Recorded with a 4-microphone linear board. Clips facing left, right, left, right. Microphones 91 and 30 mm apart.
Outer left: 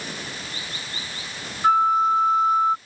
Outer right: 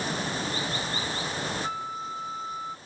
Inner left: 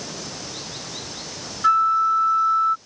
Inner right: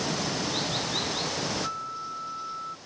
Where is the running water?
35° right (ahead or behind).